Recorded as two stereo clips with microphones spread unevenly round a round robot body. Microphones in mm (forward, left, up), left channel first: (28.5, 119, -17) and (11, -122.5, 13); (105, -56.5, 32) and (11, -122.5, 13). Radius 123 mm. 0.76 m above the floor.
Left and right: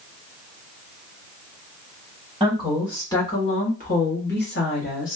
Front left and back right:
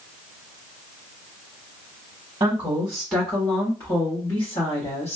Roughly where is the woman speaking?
Behind.